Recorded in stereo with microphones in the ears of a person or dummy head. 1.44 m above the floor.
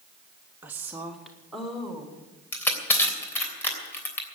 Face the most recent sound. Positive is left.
turn(degrees=20)  # may be behind; listen again after turning